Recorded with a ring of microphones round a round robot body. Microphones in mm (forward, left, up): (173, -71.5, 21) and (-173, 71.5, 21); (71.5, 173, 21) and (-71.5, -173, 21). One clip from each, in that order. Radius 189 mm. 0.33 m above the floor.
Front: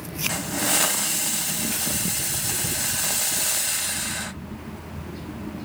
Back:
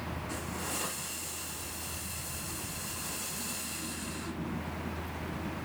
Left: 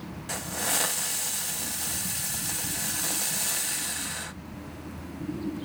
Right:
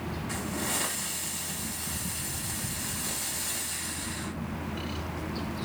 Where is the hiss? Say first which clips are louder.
Front 14 dB, left 4 dB; 20° left, 0.6 m.